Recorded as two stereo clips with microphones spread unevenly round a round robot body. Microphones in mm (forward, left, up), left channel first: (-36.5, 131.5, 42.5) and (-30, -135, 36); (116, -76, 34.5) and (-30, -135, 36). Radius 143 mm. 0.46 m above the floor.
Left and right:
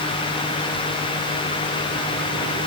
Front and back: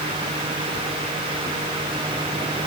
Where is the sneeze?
No sneeze in this recording.